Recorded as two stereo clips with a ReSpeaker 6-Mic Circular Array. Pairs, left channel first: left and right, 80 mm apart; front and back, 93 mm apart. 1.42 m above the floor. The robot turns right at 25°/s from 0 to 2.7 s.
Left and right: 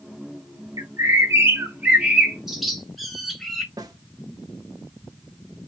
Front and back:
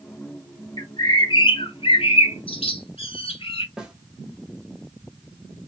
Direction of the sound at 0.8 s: 45° right.